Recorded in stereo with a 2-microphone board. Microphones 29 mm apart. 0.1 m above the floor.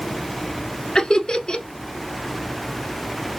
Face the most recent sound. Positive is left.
turn(degrees=25)  # may be behind; listen again after turning